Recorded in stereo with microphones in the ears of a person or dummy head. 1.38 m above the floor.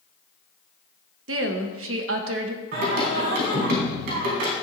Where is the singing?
60° right (ahead or behind), 3 m.